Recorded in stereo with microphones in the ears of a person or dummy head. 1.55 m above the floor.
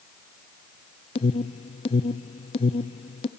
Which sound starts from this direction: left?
An alarm, at 1.1 s.